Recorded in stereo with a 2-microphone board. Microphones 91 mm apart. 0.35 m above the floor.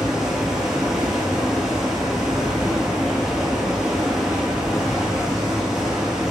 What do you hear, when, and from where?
0.0 s running water: 5° right (ahead or behind), 0.8 m